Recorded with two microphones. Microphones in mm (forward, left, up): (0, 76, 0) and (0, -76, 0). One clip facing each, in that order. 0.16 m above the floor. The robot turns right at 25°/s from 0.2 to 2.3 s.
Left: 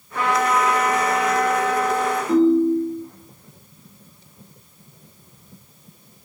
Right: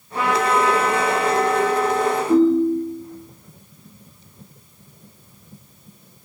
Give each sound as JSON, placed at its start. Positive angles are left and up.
{"t": 0.1, "sound": "a trumpet", "azimuth_deg": -20, "distance_m": 2.0}
{"t": 2.3, "sound": "a ringtone", "side_deg": 25, "distance_m": 0.7}